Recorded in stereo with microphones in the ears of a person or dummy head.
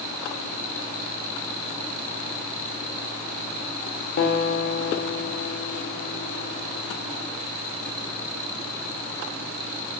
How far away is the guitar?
About 0.6 m.